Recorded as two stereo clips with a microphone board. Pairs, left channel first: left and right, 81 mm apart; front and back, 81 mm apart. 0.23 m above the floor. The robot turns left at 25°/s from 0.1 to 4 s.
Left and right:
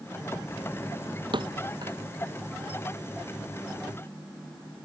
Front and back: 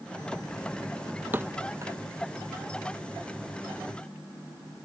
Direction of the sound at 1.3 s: 115° right.